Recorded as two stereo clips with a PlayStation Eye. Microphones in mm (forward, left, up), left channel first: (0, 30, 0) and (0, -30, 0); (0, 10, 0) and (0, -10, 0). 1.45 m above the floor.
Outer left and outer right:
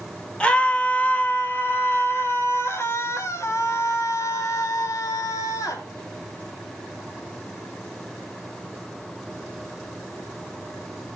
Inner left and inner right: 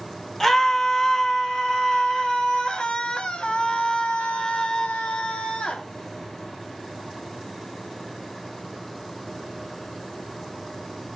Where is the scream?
20° left (ahead or behind), 2.5 m; by 5.8 s 70° left (ahead or behind), 3.5 m.